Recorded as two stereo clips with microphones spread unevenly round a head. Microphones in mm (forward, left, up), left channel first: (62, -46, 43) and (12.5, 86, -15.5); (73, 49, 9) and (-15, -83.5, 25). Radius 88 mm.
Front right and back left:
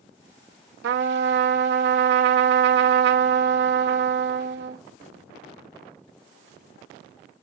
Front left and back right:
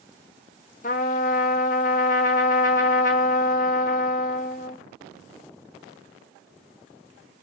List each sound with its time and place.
0.8 s a trumpet: 105° left, 0.7 m